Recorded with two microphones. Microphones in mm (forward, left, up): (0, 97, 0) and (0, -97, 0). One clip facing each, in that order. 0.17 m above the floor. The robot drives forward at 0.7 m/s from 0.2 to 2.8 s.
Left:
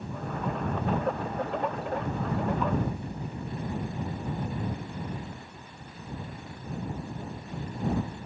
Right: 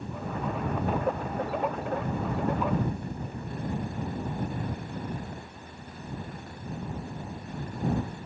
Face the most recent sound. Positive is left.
No sound to turn to.